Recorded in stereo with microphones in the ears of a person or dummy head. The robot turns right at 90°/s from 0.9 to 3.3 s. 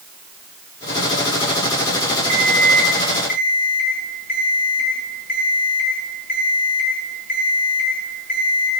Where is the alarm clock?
45° right, 4 m; by 8.7 s 45° left, 4 m.